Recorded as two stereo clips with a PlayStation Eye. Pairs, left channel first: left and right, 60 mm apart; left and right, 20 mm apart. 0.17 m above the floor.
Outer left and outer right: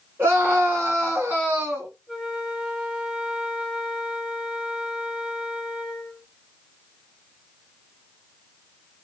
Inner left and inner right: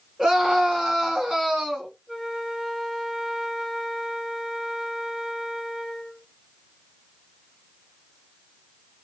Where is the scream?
45° right (ahead or behind), 2 m; by 1.9 s 40° right (ahead or behind), 1.9 m.